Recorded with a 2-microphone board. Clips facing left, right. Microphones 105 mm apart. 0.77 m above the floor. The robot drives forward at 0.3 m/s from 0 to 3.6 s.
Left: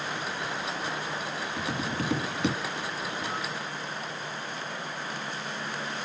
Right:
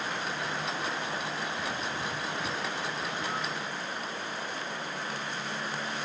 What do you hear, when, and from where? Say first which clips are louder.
1.6 s tapping: left 3 dB; 75° left (ahead or behind); by 2.6 s 80° left